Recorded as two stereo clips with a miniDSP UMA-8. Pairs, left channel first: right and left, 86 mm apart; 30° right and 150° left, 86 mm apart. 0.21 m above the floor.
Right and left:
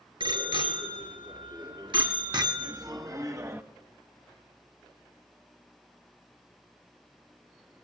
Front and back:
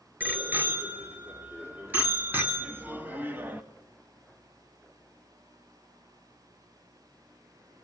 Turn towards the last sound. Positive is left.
turn(degrees=105)